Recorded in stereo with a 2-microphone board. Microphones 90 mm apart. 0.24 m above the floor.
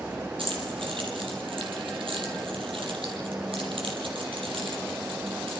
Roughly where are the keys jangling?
Right.